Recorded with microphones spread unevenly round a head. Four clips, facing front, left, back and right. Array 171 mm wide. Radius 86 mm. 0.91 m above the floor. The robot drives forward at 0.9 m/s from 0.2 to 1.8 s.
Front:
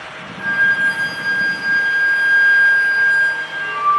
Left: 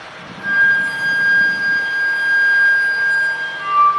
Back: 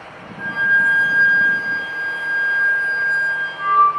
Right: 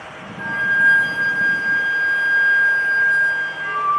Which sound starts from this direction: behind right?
A flute, at 0.4 s.